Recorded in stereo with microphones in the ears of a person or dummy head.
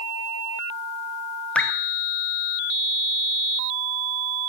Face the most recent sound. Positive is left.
turn(degrees=5)  # may be behind; listen again after turning